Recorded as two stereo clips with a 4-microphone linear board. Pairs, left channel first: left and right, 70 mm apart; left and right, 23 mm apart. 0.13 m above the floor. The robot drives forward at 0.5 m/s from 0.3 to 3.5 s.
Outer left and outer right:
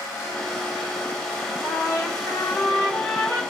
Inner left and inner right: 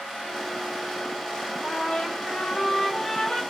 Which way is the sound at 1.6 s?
40° left (ahead or behind).